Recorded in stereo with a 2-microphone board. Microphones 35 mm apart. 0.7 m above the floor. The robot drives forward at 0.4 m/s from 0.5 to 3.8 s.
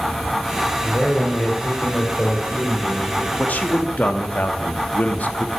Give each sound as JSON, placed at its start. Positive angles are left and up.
{"t": 0.8, "sound": "a man speaking", "side_deg": 65, "distance_m": 1.6}
{"t": 3.4, "sound": "a man speaking", "side_deg": 55, "distance_m": 0.8}